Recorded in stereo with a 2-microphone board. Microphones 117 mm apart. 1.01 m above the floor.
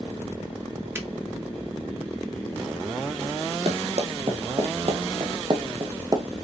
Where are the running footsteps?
60° right (ahead or behind), 2 m; by 6.2 s 30° right (ahead or behind), 1.1 m.